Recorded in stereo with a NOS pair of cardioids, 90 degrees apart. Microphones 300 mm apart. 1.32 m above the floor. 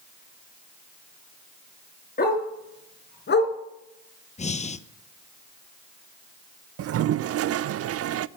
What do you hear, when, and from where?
2.2 s a dog barking: 30° left, 5 m; by 3.5 s 40° left, 3.5 m
4.4 s breathing: 20° left, 0.9 m
6.8 s a toilet flushing: 50° right, 0.5 m